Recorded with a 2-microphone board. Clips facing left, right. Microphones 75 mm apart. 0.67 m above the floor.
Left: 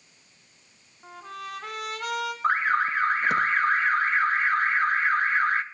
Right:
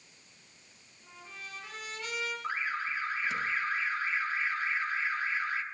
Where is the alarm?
55° left (ahead or behind), 0.7 m.